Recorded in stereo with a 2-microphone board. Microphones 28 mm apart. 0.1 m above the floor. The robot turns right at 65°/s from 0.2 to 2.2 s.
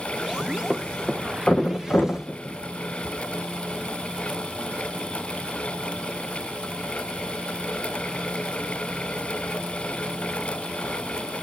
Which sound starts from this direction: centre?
A thud, at 0.7 s.